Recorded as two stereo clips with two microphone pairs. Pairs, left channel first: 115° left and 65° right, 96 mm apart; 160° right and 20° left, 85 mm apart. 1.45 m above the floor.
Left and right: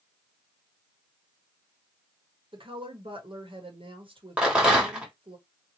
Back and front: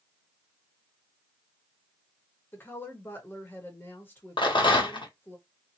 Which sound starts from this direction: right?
A woman speaking, at 2.5 s.